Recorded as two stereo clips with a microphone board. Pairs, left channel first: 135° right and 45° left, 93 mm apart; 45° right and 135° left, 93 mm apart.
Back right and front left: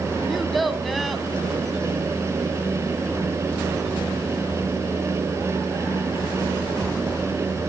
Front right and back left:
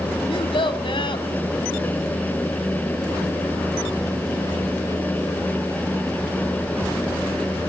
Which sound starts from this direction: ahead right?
A child speaking, at 0.3 s.